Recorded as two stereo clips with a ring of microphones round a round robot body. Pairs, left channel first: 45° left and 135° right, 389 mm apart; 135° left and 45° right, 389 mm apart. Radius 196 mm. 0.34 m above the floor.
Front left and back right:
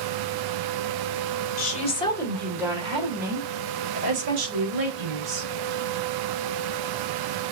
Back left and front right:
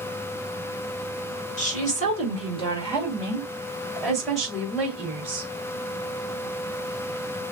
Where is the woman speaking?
85° left, 1.6 m; by 5.5 s 130° right, 2.5 m.